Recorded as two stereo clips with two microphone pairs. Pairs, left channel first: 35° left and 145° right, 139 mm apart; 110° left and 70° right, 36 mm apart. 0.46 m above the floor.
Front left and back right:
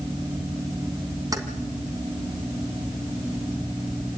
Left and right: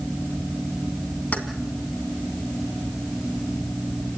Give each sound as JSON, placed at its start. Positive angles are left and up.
{"t": 1.3, "sound": "keys jangling", "azimuth_deg": 155, "distance_m": 2.5}